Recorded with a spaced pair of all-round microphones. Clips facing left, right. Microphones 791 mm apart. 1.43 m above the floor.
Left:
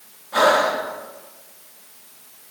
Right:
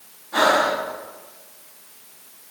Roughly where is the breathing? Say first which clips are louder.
Left 2 dB; centre.